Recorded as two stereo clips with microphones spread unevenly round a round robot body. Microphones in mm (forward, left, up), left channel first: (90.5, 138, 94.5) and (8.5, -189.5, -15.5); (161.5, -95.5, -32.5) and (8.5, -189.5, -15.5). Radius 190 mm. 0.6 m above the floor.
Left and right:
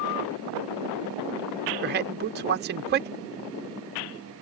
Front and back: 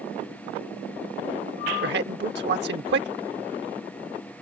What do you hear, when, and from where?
1.8 s a man speaking: 145° right